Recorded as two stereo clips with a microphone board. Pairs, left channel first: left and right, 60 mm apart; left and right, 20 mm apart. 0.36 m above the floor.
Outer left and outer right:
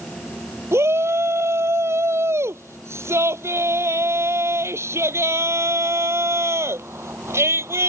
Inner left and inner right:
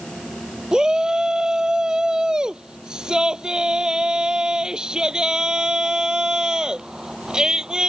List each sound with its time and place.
0.7 s a shout: 45° right (ahead or behind)